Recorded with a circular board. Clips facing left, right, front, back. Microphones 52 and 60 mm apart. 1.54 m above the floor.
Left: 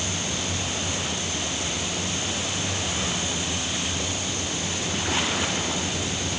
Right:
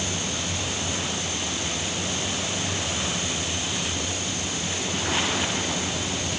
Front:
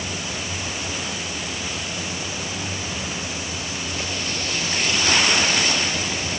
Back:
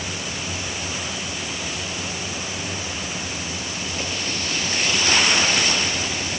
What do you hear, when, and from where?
Only background noise.